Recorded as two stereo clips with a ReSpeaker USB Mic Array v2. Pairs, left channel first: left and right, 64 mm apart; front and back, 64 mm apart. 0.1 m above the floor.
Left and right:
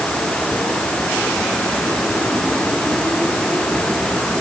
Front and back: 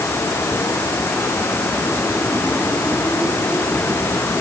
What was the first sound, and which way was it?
Only background noise.